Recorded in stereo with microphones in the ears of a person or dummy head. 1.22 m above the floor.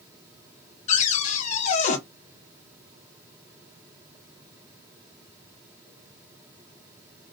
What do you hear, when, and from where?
0.9 s a cupboard door: 40° left (ahead or behind), 1.3 m